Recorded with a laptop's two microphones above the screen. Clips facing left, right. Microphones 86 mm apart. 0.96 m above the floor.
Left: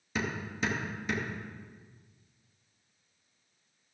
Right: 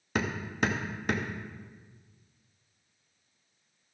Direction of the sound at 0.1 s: 60° right (ahead or behind).